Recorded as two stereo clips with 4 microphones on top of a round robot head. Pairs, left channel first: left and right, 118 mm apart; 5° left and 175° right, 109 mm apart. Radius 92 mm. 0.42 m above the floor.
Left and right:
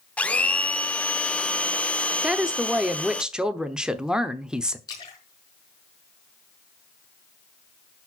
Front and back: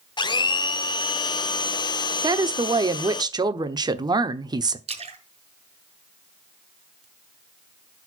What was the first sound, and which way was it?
A blender, 15° left.